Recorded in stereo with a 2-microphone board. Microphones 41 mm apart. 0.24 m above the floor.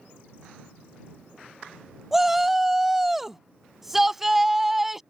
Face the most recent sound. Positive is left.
turn(degrees=-5)  # may be behind; listen again after turning